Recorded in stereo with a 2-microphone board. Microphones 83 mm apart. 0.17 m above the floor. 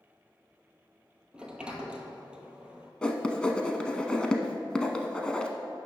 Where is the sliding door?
10° right (ahead or behind), 0.9 m.